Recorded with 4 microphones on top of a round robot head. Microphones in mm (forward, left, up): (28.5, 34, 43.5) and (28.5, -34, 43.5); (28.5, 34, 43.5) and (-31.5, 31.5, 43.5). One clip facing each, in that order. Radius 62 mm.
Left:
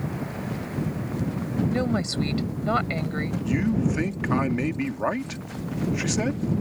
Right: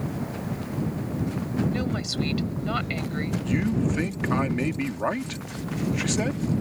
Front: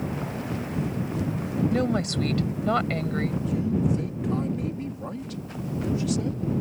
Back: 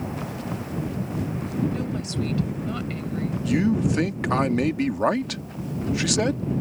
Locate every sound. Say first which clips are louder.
1.7 s a woman speaking: left 3 dB, front 4 dB; 30° left
3.5 s a man speaking: left 1 dB, back 6 dB; 175° left